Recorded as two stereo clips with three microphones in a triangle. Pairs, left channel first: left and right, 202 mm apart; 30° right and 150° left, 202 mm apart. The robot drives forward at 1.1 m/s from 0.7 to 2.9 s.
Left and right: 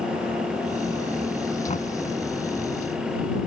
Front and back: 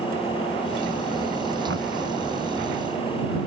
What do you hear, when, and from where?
1.7 s knocking: 145° left